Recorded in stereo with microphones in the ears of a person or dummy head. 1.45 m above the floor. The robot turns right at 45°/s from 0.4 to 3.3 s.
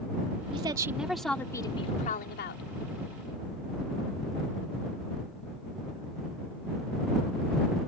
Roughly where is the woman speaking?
Ahead right.